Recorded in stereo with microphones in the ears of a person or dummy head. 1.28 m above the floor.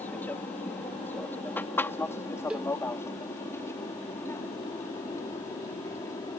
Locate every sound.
0.0 s an aircraft: 10° left (ahead or behind); by 6.4 s 15° left (ahead or behind)
2.5 s a cowbell: 5° right (ahead or behind)